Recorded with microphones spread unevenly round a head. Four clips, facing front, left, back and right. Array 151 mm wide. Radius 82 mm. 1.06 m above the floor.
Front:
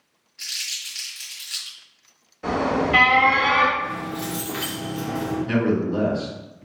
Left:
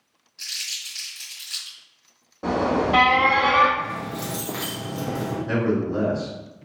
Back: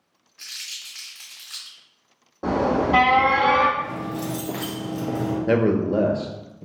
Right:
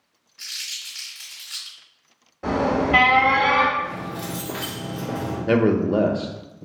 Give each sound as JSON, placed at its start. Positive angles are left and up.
{"t": 0.4, "sound": "crumpling", "azimuth_deg": 170, "distance_m": 1.7}
{"t": 2.4, "sound": "an alarm", "azimuth_deg": 155, "distance_m": 1.4}
{"t": 3.8, "sound": "keys jangling", "azimuth_deg": 130, "distance_m": 0.7}
{"t": 5.5, "sound": "a man speaking", "azimuth_deg": -120, "distance_m": 0.6}